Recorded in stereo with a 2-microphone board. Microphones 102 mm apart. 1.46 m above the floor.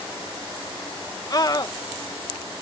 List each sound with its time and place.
1.3 s a scream: 40° left (ahead or behind)